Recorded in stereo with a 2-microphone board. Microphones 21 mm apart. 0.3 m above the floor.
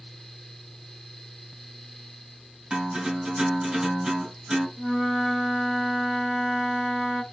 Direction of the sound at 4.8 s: 20° right (ahead or behind).